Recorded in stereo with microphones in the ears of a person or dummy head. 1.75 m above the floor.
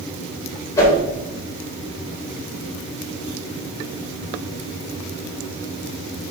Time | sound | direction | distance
0.8 | a whoosh | 20° left (ahead or behind) | 2.5 m